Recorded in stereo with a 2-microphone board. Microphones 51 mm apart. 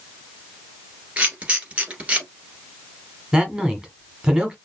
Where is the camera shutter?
25° right (ahead or behind), 1.6 m.